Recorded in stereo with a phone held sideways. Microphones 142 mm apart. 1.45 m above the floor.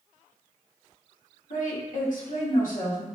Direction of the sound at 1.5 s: 70° left (ahead or behind).